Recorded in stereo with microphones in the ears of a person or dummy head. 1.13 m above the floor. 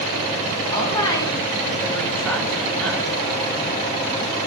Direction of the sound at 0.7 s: 20° left (ahead or behind).